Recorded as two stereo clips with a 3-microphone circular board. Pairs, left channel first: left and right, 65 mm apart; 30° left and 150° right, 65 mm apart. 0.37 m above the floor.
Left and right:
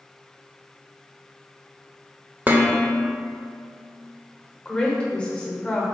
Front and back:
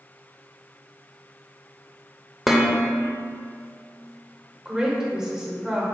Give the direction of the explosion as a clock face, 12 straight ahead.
I don't hear an explosion.